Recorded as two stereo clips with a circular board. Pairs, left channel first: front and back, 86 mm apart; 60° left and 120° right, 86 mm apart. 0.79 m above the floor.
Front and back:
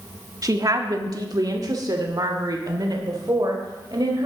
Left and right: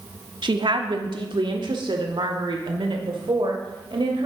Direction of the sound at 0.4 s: 135° right.